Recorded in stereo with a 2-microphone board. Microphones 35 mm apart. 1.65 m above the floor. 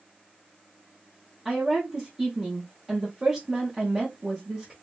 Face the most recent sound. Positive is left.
turn(degrees=-20)  # may be behind; listen again after turning